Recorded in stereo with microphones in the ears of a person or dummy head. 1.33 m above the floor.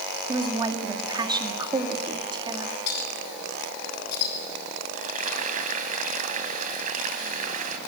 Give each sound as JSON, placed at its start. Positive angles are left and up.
{"t": 0.3, "sound": "a woman speaking", "side_deg": -25, "distance_m": 2.0}
{"t": 2.9, "sound": "a clink", "side_deg": 65, "distance_m": 5.0}
{"t": 5.0, "sound": "frying", "side_deg": -40, "distance_m": 2.5}